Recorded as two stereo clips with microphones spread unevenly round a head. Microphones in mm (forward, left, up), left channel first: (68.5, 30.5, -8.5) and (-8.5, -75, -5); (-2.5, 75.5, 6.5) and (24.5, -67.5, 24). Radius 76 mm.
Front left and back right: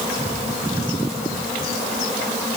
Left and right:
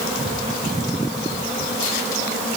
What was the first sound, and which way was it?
Only background noise.